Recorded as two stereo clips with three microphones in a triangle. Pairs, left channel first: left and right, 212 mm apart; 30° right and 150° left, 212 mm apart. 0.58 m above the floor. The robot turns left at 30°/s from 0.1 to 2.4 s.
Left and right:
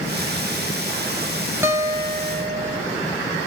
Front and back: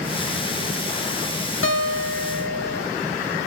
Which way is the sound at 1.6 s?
10° right.